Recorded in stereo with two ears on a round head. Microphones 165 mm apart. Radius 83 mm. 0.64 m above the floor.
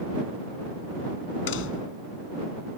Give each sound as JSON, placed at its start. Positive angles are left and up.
{"t": 1.5, "sound": "a door slam", "side_deg": 75}